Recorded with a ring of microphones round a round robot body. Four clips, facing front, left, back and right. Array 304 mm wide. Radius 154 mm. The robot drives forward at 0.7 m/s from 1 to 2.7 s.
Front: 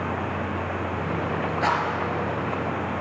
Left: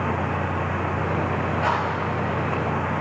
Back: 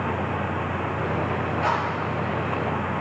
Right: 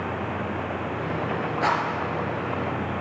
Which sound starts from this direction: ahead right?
A rattle, at 1.6 s.